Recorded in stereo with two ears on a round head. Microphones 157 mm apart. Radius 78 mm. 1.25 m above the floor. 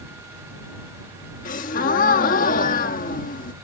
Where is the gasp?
50° left (ahead or behind).